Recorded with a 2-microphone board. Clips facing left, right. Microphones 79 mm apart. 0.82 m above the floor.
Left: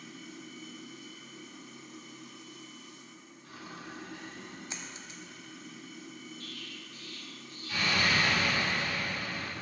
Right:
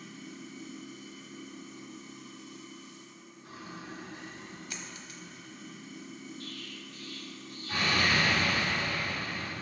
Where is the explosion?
40° right (ahead or behind), 1.7 m.